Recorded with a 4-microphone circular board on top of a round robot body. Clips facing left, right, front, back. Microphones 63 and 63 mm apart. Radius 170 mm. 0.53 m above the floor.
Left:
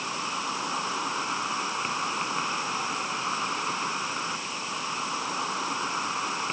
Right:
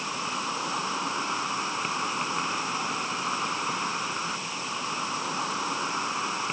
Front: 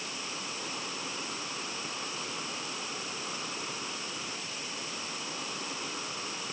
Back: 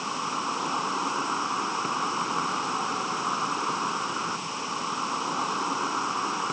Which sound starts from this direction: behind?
An insect, at 0.0 s.